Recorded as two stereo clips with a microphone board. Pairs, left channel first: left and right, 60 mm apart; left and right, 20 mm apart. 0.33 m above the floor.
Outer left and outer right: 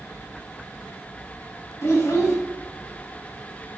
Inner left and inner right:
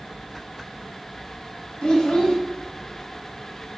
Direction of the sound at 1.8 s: 55° left (ahead or behind).